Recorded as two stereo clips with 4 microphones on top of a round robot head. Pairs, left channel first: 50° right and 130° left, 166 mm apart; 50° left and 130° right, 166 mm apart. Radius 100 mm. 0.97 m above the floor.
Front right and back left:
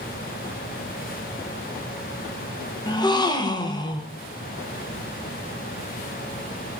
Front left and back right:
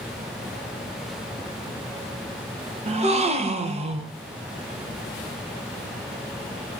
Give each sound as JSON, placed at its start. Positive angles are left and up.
{"t": 2.9, "sound": "a gasp", "azimuth_deg": -105, "distance_m": 0.7}